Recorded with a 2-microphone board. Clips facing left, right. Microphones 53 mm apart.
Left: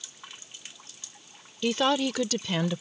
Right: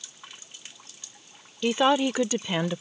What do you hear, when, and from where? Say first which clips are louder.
1.6 s a woman speaking: right 3 dB; 15° right (ahead or behind)